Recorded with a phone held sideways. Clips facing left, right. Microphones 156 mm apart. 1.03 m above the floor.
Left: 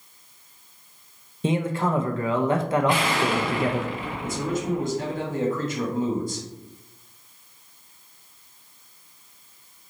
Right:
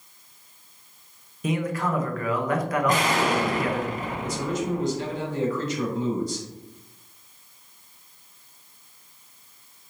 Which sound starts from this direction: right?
An explosion, at 2.9 s.